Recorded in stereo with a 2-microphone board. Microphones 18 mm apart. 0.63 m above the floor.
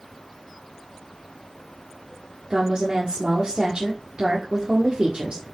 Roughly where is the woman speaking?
Right.